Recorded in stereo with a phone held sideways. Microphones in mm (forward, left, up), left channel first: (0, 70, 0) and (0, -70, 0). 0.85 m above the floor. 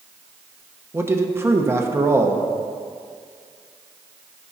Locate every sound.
0.9 s a man speaking: 20° right (ahead or behind), 0.7 m